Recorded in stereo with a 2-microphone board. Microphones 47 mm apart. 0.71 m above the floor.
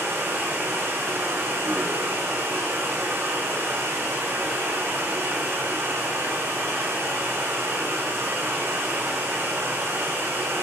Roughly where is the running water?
Right.